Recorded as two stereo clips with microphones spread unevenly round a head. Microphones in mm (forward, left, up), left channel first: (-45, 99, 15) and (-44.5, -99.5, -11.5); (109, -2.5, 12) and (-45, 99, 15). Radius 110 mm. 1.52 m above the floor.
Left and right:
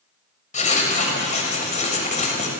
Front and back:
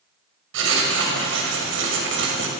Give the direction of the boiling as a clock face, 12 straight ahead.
I don't hear boiling.